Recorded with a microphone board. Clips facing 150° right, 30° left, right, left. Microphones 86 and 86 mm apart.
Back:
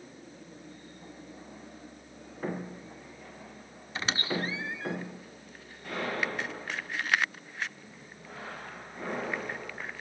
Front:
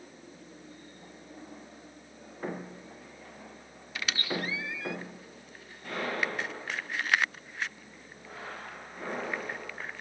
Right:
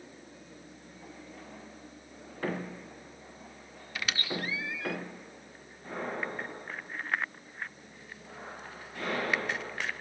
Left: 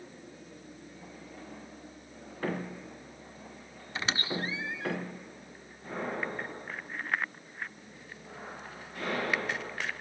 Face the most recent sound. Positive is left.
turn(degrees=150)